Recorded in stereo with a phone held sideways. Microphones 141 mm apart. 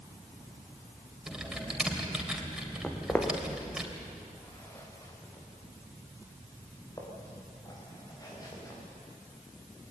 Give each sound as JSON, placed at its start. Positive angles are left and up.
{"t": 1.3, "sound": "typing on a keyboard", "side_deg": -5, "distance_m": 3.0}
{"t": 2.8, "sound": "footsteps", "side_deg": 5, "distance_m": 2.5}